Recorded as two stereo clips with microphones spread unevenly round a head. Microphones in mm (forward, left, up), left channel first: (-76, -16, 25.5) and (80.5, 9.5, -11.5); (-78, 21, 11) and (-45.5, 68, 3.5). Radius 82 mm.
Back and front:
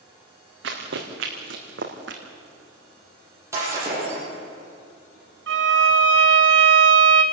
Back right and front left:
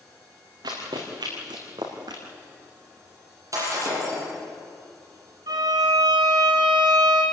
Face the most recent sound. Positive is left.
turn(degrees=20)